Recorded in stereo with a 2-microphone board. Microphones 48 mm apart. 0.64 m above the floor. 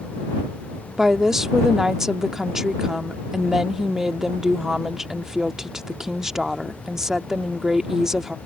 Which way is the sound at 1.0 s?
10° right (ahead or behind).